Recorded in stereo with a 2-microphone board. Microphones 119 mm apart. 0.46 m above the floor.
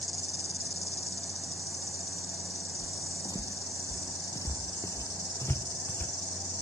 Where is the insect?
70° left (ahead or behind).